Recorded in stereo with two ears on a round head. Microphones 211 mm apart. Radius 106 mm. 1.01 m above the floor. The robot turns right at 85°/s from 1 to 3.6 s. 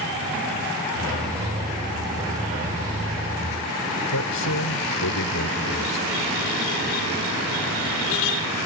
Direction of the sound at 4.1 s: 80° left.